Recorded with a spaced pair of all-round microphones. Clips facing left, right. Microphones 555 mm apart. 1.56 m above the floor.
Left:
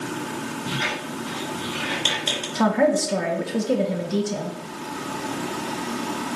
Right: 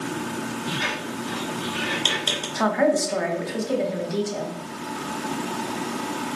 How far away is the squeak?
About 3 m.